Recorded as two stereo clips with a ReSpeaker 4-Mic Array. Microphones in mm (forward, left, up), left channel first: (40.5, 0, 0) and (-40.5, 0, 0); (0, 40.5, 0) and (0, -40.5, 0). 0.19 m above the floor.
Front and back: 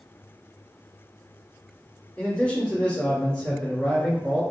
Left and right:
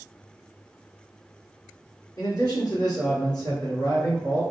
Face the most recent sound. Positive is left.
turn(degrees=80)